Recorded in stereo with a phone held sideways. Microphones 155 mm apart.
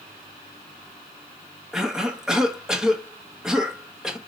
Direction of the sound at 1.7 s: 5° right (ahead or behind).